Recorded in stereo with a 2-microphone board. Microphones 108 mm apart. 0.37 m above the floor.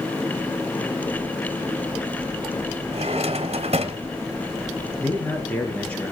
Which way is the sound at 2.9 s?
65° right (ahead or behind).